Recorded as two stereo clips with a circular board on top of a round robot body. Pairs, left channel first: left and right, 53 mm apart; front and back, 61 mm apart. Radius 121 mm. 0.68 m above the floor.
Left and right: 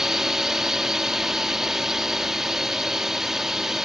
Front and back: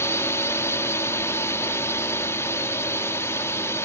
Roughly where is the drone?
Ahead.